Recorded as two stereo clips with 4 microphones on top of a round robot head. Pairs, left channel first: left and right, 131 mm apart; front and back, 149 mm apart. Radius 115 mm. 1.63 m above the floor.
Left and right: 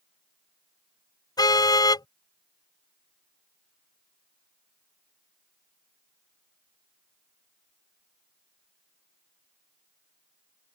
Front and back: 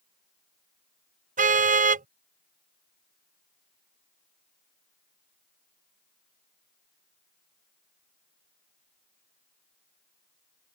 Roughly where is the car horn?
Behind left.